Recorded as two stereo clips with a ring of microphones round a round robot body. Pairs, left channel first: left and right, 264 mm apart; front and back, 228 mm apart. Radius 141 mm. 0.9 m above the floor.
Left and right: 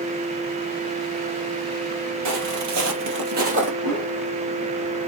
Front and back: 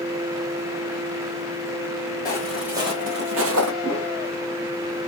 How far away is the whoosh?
About 2.5 m.